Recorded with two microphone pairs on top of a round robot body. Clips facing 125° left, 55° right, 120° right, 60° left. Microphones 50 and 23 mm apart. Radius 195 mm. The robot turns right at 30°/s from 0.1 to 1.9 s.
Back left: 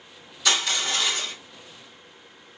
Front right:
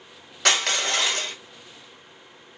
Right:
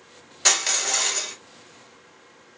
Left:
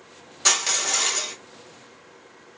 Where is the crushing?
45° right, 1.8 m; by 1.3 s 20° right, 1.8 m.